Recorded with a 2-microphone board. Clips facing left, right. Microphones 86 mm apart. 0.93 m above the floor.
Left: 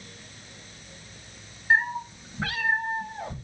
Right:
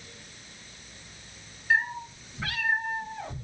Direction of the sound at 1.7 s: 50° left (ahead or behind).